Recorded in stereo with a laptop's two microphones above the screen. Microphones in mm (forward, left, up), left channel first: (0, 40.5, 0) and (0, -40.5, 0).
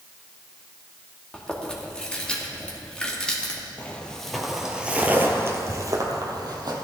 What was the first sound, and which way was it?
Chewing, 10° left (ahead or behind).